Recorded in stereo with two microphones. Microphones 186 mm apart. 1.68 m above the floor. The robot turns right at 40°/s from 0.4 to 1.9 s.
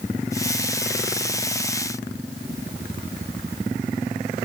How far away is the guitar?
No guitar in this recording.